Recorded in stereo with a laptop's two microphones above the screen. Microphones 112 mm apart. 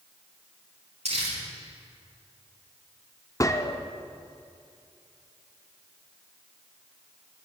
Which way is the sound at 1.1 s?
75° right (ahead or behind).